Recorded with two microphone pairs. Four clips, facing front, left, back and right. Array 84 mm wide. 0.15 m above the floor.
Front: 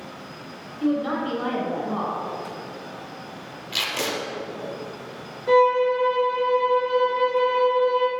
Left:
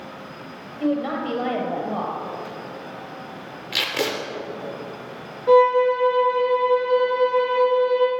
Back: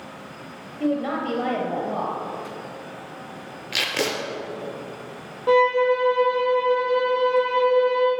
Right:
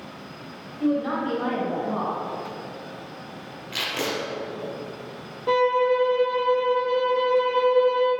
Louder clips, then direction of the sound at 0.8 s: Even, front 1 dB; 140° left.